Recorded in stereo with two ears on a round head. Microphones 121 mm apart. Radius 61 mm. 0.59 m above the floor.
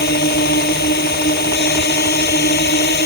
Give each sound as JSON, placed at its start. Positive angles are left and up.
{"t": 0.0, "sound": "a drone", "side_deg": 85}